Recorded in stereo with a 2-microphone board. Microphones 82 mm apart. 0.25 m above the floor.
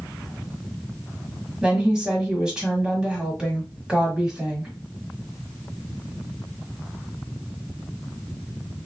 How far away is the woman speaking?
About 1.4 m.